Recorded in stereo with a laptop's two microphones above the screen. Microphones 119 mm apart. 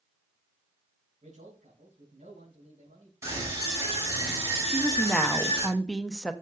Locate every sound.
1.2 s a man speaking: 80° right, 5 m
3.2 s a scream: 25° right (ahead or behind), 7 m
4.7 s a woman speaking: 5° left (ahead or behind), 0.7 m